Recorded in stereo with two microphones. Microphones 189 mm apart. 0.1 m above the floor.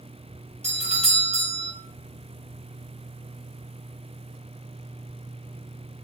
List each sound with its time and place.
0.6 s a doorbell: 35° right (ahead or behind), 3 m